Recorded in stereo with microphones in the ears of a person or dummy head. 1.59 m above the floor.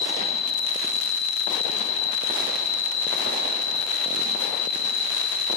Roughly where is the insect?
Left.